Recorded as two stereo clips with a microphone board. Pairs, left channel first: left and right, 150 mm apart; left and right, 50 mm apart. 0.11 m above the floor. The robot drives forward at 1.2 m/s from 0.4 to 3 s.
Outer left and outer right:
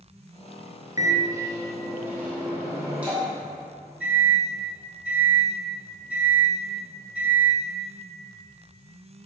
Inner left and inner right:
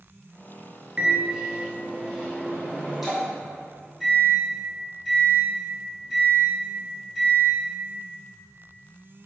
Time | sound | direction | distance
1.0 | a microwave | 25° right (ahead or behind) | 1.0 m